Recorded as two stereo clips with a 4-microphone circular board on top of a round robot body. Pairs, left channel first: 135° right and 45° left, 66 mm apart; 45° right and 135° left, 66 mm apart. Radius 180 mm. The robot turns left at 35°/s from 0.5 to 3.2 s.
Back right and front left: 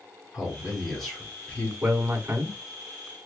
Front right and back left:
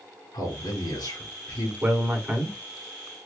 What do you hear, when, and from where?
0.3 s a man speaking: 35° right, 4 m; by 1.7 s 80° right, 4 m
1.8 s a man speaking: 90° left, 1.8 m; by 2.6 s 60° left, 1.8 m